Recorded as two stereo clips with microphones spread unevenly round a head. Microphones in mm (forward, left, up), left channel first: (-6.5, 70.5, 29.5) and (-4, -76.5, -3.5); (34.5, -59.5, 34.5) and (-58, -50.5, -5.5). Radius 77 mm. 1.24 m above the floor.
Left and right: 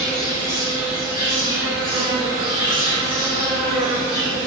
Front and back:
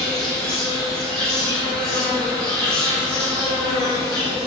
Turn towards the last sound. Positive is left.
turn(degrees=140)